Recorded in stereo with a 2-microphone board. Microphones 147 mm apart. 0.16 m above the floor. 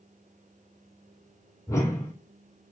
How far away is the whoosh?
About 3.5 m.